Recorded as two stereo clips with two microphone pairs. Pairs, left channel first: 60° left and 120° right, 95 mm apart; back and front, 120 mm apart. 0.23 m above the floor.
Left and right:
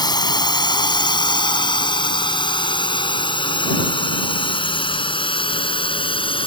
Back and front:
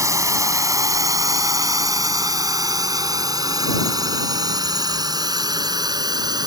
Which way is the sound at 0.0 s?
55° left.